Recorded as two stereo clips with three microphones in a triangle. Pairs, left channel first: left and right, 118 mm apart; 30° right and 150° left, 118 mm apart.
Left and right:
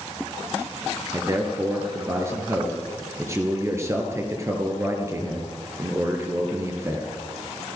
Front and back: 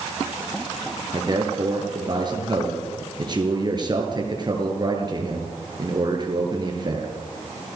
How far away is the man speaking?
About 5 m.